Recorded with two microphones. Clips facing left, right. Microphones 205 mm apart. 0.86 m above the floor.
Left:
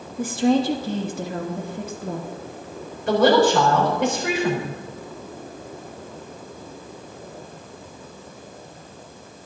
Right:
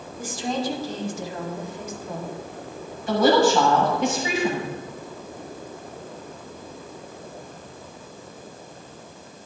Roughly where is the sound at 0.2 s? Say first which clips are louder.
Left 9 dB; left.